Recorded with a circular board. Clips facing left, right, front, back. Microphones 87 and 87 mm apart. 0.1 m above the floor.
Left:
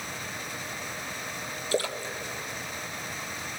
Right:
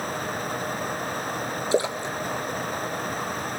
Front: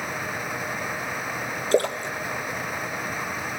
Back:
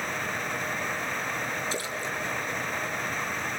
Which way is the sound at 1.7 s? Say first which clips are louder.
Right 5 dB, front 10 dB; 25° right.